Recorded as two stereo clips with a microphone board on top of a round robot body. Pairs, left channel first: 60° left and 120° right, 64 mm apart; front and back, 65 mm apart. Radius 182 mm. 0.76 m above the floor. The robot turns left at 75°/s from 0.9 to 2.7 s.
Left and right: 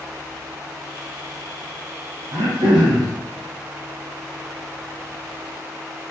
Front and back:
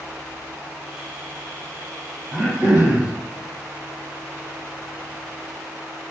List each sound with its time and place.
2.3 s throat clearing: 85° right, 0.7 m; by 3.1 s 115° right, 0.7 m